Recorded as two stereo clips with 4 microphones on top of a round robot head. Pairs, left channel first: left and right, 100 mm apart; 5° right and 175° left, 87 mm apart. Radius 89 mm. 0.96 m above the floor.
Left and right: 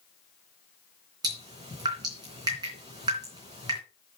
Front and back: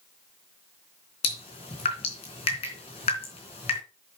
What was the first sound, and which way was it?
Dripping, 30° right.